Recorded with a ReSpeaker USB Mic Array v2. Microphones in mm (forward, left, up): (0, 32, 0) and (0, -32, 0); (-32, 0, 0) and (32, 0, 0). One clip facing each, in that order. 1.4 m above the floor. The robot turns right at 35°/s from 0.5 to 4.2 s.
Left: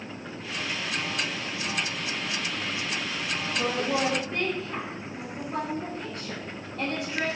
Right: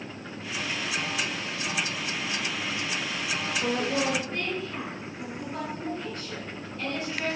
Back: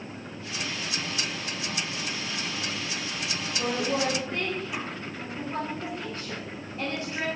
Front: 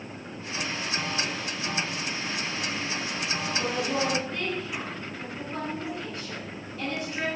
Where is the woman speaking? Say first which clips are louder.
Left 1 dB, back 2 dB; 105° left, 8 m; by 7.3 s 125° left, 8 m.